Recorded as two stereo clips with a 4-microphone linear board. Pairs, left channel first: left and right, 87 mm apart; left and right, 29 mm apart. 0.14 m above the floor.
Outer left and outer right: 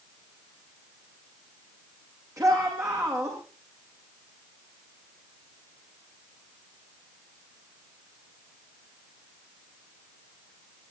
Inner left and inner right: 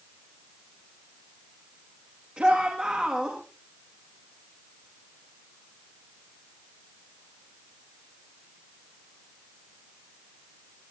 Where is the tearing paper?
I don't hear tearing paper.